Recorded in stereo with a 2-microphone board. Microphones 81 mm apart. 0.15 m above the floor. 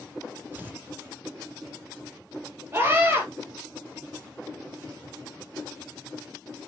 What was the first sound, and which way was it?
Tearing paper, 25° right (ahead or behind).